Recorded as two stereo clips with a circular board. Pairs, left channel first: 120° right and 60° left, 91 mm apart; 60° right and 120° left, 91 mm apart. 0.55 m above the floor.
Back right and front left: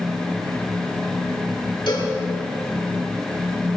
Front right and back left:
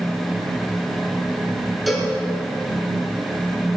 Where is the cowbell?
150° right, 4.5 m.